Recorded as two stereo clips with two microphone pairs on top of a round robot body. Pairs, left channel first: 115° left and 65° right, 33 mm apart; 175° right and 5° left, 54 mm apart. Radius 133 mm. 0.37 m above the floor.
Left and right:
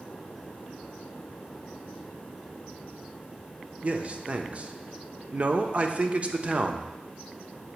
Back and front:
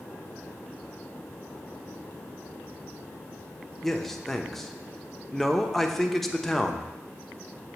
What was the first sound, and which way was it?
A man speaking, 80° right.